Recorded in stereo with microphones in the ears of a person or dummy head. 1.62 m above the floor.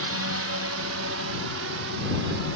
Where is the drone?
70° right (ahead or behind).